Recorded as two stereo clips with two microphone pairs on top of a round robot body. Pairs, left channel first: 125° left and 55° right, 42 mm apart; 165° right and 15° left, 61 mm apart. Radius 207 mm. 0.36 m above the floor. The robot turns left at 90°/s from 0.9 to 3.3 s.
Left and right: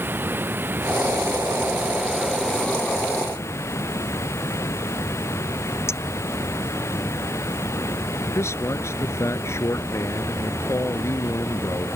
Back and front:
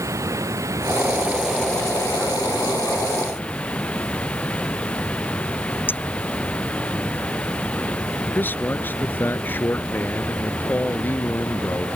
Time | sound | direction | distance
0.0 | running water | 20° right | ?
5.9 | a clink | 140° left | ?
8.3 | a man speaking | 135° left | ?